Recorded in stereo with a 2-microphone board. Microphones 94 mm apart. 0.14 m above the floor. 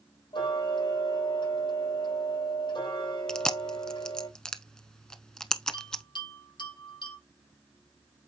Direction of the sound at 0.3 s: 70° left (ahead or behind).